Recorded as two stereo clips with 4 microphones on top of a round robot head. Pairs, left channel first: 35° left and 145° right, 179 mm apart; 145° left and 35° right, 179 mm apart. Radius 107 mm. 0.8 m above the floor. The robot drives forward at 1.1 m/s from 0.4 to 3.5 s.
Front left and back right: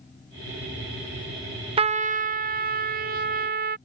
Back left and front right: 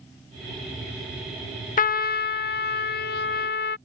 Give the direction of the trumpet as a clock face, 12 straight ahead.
6 o'clock.